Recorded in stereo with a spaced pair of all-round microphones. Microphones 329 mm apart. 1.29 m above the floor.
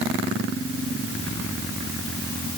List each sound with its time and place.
Only background noise.